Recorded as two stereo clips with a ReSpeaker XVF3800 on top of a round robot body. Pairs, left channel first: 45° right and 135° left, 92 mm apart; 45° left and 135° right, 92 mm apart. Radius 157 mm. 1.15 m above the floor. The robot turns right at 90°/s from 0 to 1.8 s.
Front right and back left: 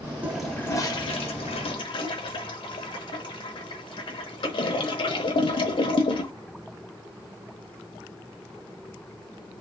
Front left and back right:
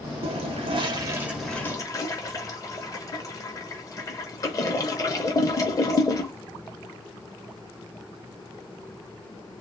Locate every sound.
0.2 s a toilet flushing: 150° right, 0.6 m; by 6.3 s 10° right, 0.6 m